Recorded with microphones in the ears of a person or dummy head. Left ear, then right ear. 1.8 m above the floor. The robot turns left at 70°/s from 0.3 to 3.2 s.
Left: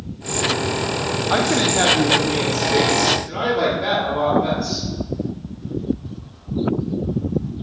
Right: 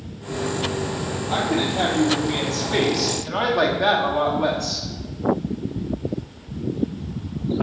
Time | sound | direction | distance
1.3 | a woman speaking | 60° left | 0.9 m